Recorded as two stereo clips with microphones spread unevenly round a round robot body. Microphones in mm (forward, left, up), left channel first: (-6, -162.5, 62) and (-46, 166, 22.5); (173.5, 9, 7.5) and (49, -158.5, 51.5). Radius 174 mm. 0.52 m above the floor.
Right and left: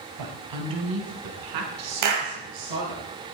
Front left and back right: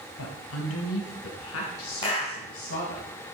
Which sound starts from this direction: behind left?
A clap, at 2.0 s.